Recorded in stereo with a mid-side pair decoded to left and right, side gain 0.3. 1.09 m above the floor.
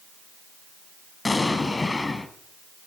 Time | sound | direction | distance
1.2 | an explosion | 35° left | 2.5 m